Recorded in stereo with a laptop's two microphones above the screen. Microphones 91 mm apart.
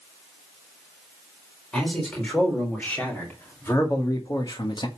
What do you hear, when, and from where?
1.7 s a man speaking: 10° left (ahead or behind), 4 m; by 4.9 s 60° left (ahead or behind), 1.4 m